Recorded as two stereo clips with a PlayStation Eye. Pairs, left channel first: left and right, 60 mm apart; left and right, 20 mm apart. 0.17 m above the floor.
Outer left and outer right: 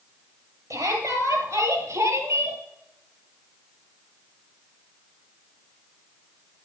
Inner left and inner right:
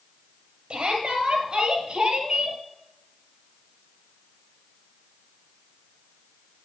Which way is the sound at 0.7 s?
70° right (ahead or behind).